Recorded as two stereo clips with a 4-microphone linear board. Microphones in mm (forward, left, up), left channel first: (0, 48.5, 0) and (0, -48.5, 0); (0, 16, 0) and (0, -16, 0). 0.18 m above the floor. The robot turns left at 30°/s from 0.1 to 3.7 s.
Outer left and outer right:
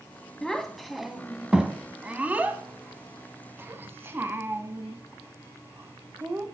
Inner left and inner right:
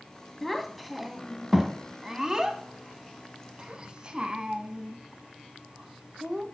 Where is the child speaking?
5° left (ahead or behind), 0.6 m; by 6.5 s 20° right (ahead or behind), 0.6 m.